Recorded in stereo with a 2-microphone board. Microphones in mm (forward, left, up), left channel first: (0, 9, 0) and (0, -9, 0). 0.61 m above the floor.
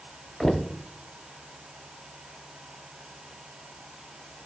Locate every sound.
0.4 s knocking: 25° left (ahead or behind), 0.8 m